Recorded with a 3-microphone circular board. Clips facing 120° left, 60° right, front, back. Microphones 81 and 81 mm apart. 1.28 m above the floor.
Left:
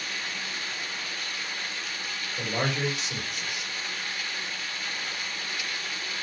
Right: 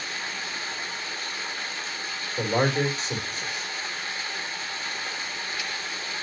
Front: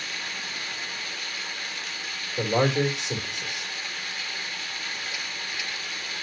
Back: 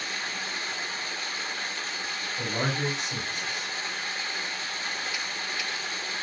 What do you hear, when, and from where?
0.0 s running water: 120° right, 3 m
2.4 s a man speaking: 5° right, 3.5 m